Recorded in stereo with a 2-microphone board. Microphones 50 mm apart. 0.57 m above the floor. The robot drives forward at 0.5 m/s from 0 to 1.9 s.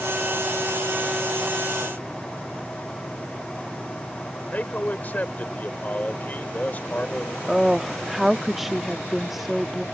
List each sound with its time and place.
4.5 s a man speaking: 40° left (ahead or behind)
7.5 s a woman speaking: 5° right (ahead or behind)